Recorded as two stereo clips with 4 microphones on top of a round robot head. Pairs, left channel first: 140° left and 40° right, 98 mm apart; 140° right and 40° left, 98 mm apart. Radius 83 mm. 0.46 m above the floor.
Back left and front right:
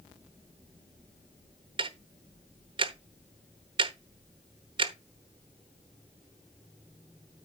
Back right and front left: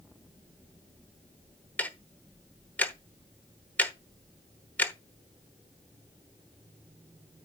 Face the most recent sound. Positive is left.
turn(degrees=-65)